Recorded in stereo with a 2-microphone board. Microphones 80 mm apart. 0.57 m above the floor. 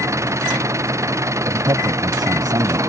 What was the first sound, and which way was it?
An engine running, 40° right (ahead or behind).